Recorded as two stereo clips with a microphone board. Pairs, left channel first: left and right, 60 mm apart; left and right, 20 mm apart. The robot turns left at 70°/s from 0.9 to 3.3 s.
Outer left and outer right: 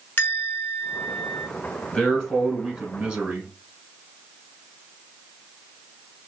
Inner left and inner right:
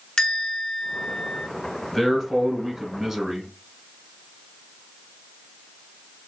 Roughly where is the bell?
Left.